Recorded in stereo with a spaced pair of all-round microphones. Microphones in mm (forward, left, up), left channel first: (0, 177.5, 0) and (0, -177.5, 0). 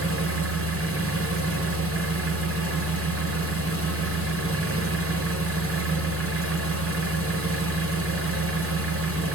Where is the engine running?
40° right (ahead or behind), 0.8 m.